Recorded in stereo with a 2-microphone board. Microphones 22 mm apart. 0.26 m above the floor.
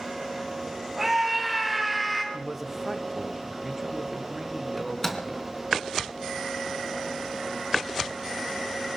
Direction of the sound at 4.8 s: 15° left (ahead or behind).